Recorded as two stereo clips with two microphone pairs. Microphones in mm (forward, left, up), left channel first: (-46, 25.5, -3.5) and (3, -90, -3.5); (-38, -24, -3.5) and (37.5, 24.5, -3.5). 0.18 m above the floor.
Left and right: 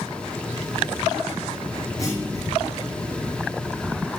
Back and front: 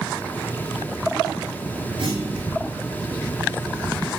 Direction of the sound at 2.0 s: 50° left.